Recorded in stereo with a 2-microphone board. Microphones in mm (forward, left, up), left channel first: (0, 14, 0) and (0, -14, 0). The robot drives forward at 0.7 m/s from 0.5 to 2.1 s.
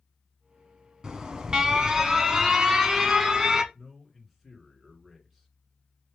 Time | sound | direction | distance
1.0 | an alarm | 20° right (ahead or behind) | 0.8 m
3.7 | a man speaking | 5° right (ahead or behind) | 2 m